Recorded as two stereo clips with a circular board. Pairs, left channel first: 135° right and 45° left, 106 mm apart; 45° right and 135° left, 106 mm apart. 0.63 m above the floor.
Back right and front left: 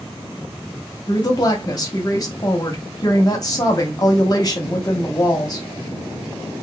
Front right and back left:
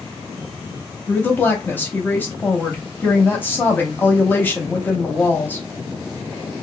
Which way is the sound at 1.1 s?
105° right.